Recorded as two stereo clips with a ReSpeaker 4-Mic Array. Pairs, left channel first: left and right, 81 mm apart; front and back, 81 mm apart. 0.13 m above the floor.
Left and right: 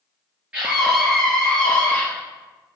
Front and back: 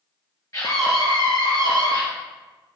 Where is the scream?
20° right, 1.7 m; by 2.0 s 15° left, 2.5 m.